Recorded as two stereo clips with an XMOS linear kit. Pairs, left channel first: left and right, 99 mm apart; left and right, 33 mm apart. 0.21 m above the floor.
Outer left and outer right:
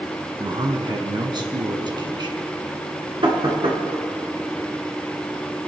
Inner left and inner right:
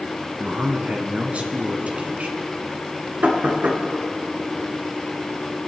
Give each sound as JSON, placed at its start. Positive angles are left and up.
{"t": 0.4, "sound": "a man speaking", "side_deg": -50, "distance_m": 1.8}
{"t": 3.2, "sound": "knocking", "side_deg": -60, "distance_m": 2.5}